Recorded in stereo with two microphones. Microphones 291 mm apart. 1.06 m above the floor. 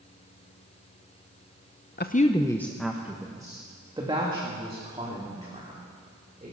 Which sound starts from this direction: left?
A woman speaking, at 2.0 s.